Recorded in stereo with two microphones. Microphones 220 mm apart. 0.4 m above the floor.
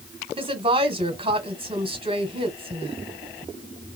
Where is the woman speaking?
25° right (ahead or behind), 1.5 m.